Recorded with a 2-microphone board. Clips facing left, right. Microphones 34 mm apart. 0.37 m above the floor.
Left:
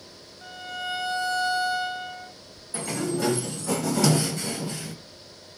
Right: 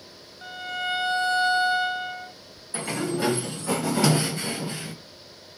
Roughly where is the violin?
Right.